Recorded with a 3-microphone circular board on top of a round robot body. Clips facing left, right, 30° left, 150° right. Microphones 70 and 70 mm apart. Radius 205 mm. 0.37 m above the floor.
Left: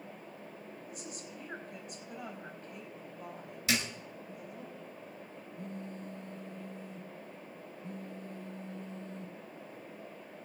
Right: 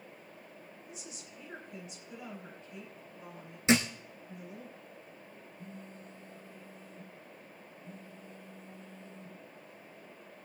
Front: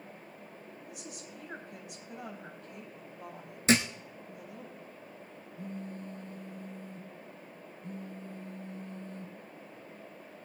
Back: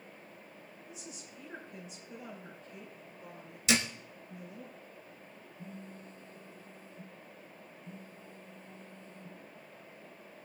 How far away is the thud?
About 1.0 m.